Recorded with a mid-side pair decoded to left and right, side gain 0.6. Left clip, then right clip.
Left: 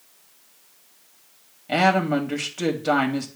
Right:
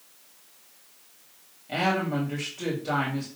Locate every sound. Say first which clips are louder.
1.7 s a woman speaking: left 7 dB; 50° left, 2.5 m